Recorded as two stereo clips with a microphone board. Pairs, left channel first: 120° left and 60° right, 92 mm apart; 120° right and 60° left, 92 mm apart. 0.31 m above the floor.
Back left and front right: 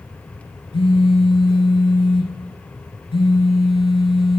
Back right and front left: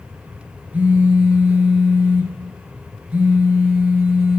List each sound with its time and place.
0.7 s a phone buzzing: 135° left, 0.6 m